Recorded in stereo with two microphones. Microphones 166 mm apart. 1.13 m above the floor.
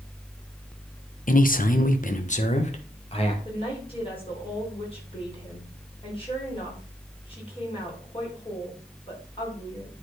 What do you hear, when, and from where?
1.3 s a man speaking: 55° left (ahead or behind), 1.0 m; by 3.4 s 35° left (ahead or behind), 1.9 m
3.5 s a woman speaking: 35° left (ahead or behind), 5 m